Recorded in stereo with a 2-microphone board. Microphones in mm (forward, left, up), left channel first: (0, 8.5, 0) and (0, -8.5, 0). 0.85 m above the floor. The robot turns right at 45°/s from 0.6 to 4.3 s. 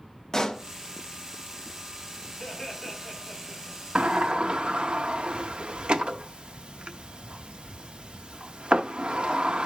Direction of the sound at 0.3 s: 30° left (ahead or behind).